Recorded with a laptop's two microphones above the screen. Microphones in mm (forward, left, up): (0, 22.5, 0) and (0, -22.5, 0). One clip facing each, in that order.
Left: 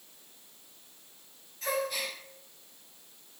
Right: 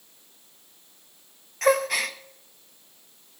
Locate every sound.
1.6 s a gasp: 70° right (ahead or behind), 0.6 m